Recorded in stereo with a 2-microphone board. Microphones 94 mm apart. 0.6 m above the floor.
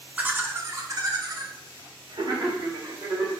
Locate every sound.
0.2 s laughter: 15° right (ahead or behind), 0.9 m; by 3.3 s 70° right (ahead or behind), 2 m